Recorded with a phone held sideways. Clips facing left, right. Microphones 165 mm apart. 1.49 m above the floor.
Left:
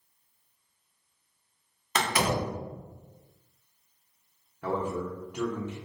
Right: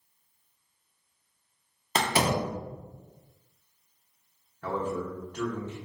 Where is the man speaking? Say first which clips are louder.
Left 1 dB; 15° left (ahead or behind), 1.1 m.